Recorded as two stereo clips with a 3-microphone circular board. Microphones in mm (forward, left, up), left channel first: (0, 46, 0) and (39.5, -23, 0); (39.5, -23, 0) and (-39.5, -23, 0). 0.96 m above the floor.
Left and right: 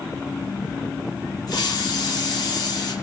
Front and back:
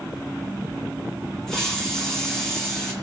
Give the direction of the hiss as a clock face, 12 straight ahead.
9 o'clock.